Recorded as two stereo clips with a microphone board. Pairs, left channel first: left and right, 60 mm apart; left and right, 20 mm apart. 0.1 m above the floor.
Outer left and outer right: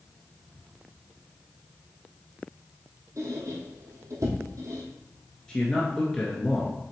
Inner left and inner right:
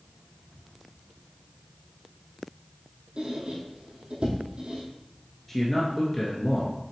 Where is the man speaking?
15° left (ahead or behind), 1.5 m.